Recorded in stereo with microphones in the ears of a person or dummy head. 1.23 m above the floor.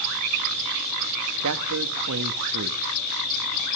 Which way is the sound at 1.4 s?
75° right (ahead or behind).